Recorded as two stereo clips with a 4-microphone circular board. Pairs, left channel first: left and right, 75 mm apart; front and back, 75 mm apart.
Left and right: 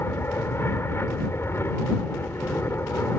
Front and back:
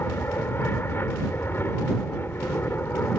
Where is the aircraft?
45° left.